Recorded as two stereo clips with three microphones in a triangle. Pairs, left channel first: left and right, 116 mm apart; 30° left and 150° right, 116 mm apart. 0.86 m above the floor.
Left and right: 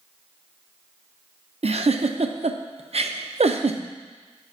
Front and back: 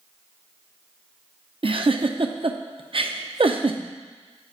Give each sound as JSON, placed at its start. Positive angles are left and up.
{"t": 1.6, "sound": "a giggle", "azimuth_deg": -110, "distance_m": 0.6}